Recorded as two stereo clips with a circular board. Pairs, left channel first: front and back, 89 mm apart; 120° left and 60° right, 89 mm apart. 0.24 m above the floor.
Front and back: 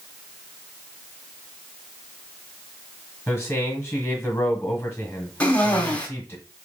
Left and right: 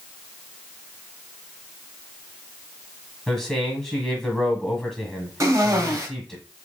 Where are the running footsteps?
I don't hear running footsteps.